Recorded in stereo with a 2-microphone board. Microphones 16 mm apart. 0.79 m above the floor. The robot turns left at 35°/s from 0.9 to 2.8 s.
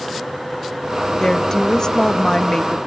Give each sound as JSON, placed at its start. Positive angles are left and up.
{"t": 1.2, "sound": "a woman speaking", "azimuth_deg": 120, "distance_m": 1.1}